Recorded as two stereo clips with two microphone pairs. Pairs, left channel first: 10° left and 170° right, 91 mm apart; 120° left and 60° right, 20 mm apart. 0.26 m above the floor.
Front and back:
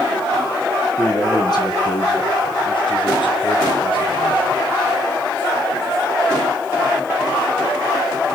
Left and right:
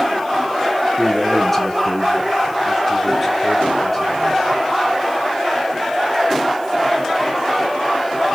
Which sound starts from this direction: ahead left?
A man speaking, at 1.0 s.